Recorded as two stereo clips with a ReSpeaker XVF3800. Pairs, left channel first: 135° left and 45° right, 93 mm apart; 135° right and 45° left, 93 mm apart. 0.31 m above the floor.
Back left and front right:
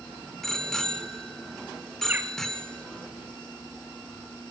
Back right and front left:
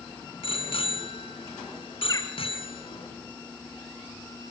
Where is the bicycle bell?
140° right, 2.5 m.